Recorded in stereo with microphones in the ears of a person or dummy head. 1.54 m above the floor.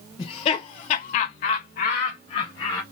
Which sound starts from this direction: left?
Laughter, at 0.2 s.